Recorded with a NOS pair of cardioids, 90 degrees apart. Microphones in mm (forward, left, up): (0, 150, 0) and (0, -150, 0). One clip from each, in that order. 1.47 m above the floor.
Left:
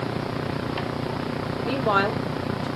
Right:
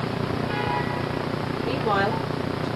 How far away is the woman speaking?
About 1.9 m.